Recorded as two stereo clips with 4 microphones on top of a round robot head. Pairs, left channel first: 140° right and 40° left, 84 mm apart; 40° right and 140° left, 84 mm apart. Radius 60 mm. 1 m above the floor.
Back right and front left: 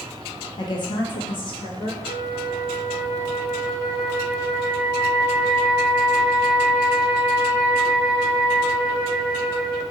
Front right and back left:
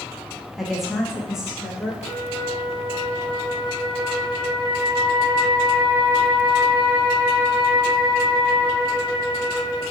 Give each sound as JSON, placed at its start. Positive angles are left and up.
{"t": 0.6, "sound": "a woman speaking", "azimuth_deg": -130, "distance_m": 0.9}
{"t": 2.0, "sound": "a flute", "azimuth_deg": 110, "distance_m": 1.7}